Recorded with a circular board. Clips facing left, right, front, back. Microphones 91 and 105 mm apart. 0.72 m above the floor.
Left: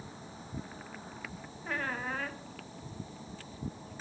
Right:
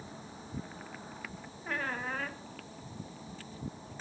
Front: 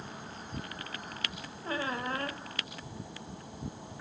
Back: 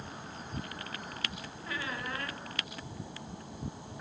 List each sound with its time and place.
1.6 s a squeak: straight ahead, 0.6 m